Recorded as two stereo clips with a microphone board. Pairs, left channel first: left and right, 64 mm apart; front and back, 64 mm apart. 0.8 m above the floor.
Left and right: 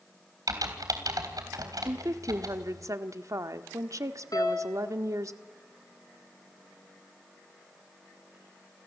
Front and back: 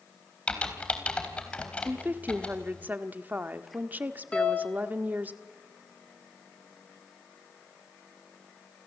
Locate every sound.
0.5 s typing on a keyboard: 70° right, 3 m
1.9 s a woman speaking: 120° right, 1.4 m
4.3 s a piano: 75° left, 4 m